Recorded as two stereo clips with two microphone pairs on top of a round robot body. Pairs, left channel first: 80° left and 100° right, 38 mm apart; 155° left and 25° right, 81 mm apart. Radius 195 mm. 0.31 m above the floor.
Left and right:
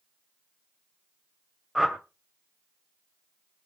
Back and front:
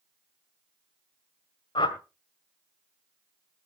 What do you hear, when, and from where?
1.8 s a whoosh: 170° left, 2 m